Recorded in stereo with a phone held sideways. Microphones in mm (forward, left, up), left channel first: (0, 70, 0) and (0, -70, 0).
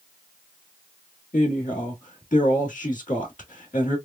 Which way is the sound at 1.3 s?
65° left (ahead or behind).